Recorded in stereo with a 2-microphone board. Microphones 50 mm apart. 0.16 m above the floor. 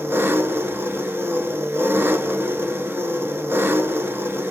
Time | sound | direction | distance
0.0 | an engine running | 55° right (ahead or behind) | 0.8 m